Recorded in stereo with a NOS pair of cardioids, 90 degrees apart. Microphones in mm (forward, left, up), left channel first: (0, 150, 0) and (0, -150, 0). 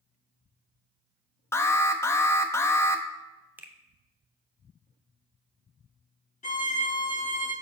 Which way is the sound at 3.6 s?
5° right.